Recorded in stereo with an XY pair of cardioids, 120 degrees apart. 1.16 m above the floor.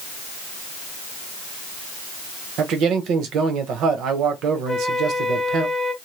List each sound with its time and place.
2.6 s a man speaking: 70° right, 1.0 m
4.7 s a flute: straight ahead, 0.6 m